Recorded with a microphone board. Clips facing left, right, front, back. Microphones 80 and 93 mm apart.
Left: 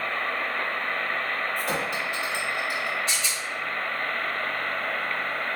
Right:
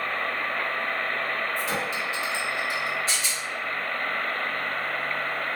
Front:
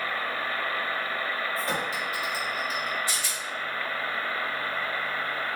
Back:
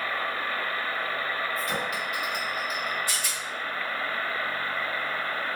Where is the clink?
55° left, 1.0 m.